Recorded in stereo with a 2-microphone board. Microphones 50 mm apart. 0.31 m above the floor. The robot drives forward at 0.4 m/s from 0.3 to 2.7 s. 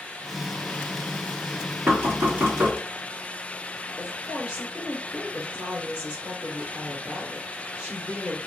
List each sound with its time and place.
1.9 s knocking: 40° right (ahead or behind), 1.5 m; by 2.8 s 35° right (ahead or behind), 1.7 m
4.0 s a woman speaking: 20° right (ahead or behind), 1.4 m